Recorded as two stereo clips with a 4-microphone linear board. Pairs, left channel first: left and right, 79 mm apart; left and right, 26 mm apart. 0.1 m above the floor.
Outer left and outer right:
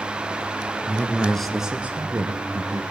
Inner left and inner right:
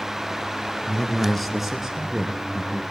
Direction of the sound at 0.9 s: 25° left (ahead or behind).